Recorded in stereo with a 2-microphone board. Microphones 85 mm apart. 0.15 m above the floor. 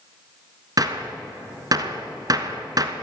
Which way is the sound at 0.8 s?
45° right (ahead or behind).